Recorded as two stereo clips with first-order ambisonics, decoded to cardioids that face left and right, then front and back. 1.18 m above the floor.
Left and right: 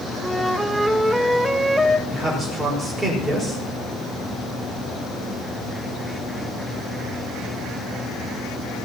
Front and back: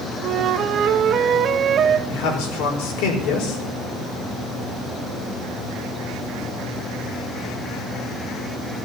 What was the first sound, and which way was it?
A flute, 175° right.